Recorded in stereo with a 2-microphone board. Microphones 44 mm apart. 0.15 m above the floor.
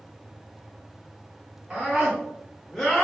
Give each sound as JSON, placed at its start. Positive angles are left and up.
{"t": 1.7, "sound": "a scream", "side_deg": -25, "distance_m": 1.4}